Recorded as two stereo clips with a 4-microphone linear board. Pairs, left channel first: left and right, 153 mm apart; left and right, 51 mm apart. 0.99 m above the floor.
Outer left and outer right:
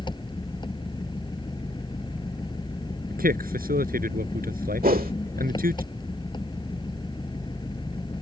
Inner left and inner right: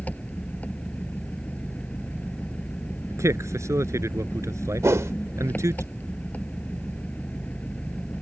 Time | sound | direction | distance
0.0 | an engine running | 30° left (ahead or behind) | ?
3.1 | a man speaking | 75° right (ahead or behind) | ?
4.8 | a whoosh | 75° right (ahead or behind) | ?